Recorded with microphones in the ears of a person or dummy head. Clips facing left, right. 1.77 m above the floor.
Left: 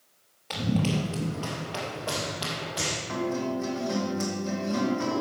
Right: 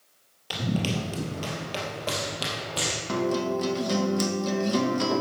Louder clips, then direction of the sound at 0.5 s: Left 1 dB; 10° right (ahead or behind).